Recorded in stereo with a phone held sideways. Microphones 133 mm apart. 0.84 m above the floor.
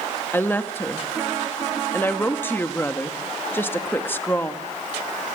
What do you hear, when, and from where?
0.3 s a woman speaking: 15° left (ahead or behind), 1.6 m